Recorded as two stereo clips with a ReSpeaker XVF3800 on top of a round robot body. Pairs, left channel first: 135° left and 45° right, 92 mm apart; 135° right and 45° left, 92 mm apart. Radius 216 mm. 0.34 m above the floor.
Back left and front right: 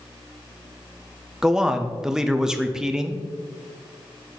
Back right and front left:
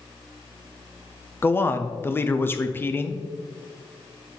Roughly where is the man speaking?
Behind right.